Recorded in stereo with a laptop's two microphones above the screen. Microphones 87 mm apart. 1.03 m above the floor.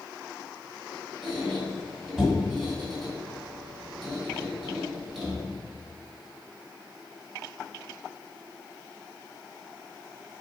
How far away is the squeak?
About 1.9 m.